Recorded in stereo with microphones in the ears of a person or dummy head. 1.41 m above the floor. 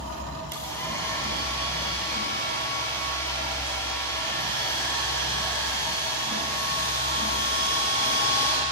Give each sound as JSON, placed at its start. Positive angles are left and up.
{"t": 0.5, "sound": "a hair dryer", "side_deg": 25, "distance_m": 9.0}